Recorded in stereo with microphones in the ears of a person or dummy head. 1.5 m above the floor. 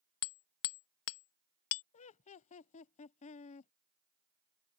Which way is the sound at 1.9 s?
30° left (ahead or behind).